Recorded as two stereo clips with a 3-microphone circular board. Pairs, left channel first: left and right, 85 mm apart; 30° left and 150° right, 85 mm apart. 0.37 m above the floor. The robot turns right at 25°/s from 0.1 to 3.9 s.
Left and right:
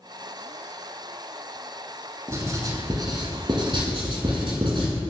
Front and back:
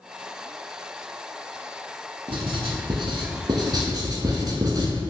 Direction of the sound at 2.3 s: 150° right.